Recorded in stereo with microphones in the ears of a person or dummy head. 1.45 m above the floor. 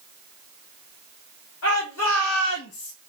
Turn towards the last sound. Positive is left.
turn(degrees=65)  # may be behind; listen again after turning